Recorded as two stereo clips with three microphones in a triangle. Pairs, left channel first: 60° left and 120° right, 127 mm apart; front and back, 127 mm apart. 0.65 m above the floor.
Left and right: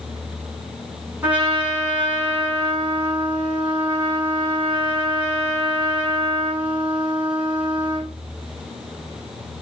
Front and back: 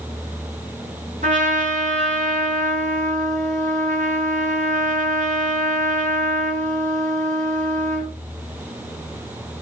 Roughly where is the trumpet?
Behind.